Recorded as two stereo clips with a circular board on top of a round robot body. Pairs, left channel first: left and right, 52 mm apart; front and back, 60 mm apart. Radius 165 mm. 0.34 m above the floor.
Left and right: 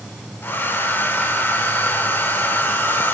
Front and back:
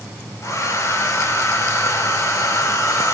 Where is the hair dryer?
40° left, 3.5 m.